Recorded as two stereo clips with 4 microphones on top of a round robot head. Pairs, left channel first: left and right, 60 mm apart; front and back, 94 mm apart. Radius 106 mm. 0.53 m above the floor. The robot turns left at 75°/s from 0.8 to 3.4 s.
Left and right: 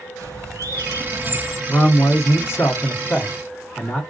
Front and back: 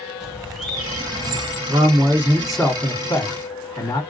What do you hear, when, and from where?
0.2 s a bird: 95° right, 1.8 m; by 1.6 s 155° right, 1.8 m
1.7 s a man speaking: 155° left, 1.6 m; by 4.0 s 30° left, 1.6 m